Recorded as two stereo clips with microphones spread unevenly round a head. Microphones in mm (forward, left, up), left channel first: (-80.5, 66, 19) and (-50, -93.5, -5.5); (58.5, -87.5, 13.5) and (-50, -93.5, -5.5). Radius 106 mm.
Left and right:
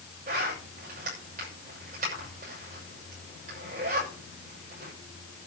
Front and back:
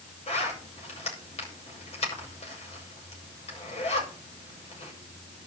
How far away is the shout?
I don't hear a shout.